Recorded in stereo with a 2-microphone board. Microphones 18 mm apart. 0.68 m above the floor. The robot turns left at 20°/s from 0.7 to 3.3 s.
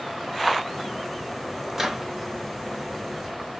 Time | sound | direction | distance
1.7 | a microwave | 20° right (ahead or behind) | 1.1 m